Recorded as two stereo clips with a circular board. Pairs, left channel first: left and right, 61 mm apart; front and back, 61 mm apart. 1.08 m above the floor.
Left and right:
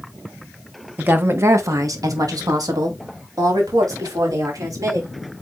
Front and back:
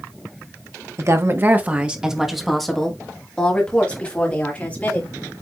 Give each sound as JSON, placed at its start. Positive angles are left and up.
{"t": 1.0, "sound": "a woman speaking", "azimuth_deg": -150, "distance_m": 1.3}